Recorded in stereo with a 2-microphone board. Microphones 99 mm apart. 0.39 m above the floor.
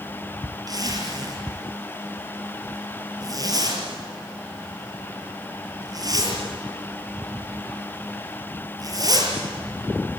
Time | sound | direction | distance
0.7 | a zipper | 40° right (ahead or behind) | 6 m